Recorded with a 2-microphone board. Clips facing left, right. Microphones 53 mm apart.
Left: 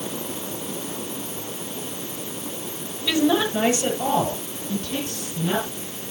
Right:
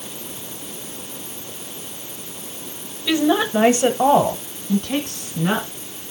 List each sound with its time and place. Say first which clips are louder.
3.1 s a woman speaking: right 2 dB; 10° right (ahead or behind), 1.1 m; by 5.7 s 65° right (ahead or behind), 2.5 m